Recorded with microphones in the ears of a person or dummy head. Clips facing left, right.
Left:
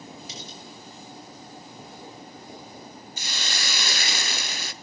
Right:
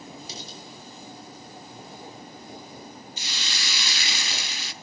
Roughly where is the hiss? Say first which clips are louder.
Left 6 dB; left.